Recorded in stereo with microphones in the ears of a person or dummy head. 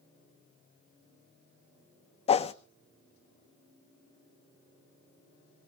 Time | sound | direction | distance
2.3 | a whoosh | 35° left (ahead or behind) | 1.0 m